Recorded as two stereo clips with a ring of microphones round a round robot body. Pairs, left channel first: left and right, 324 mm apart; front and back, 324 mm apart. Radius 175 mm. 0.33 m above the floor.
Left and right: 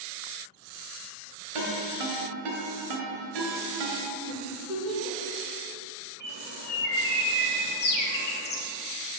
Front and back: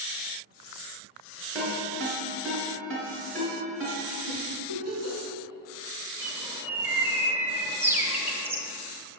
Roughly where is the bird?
Left.